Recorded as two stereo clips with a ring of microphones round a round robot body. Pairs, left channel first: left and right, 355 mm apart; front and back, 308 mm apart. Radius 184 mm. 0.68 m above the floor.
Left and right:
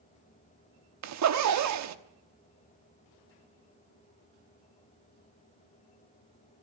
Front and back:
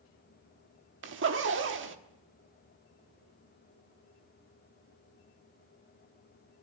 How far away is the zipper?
About 1.2 m.